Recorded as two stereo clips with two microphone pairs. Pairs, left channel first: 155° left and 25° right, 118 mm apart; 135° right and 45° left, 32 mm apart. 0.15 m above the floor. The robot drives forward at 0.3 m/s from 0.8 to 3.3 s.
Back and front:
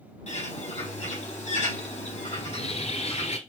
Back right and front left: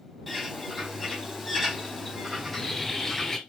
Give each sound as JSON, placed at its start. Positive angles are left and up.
{"t": 0.3, "sound": "a bird", "azimuth_deg": 140, "distance_m": 3.5}
{"t": 2.4, "sound": "a bird", "azimuth_deg": 150, "distance_m": 1.3}